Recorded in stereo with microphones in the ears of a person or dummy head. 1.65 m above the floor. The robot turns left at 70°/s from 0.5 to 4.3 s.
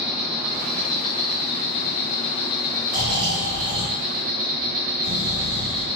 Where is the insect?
170° right, 0.8 m; by 6.0 s 80° right, 0.8 m.